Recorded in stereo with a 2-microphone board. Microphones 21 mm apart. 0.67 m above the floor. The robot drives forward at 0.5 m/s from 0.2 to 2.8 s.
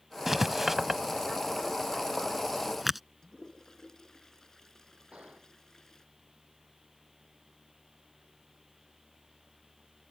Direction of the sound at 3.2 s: 25° left (ahead or behind).